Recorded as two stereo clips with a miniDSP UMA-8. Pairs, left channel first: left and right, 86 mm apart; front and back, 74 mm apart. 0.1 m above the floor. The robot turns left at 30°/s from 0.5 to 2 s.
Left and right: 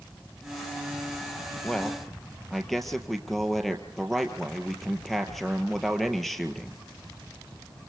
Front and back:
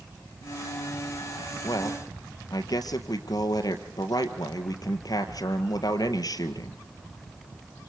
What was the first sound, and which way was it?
A man speaking, 10° left.